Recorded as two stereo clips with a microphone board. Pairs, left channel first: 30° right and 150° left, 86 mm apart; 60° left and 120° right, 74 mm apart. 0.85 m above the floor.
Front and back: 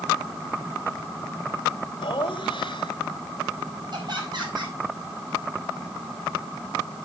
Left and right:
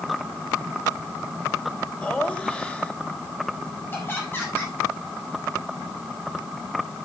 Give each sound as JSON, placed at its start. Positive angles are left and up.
{"t": 2.0, "sound": "laughter", "azimuth_deg": -15, "distance_m": 3.5}
{"t": 3.9, "sound": "laughter", "azimuth_deg": 120, "distance_m": 8.0}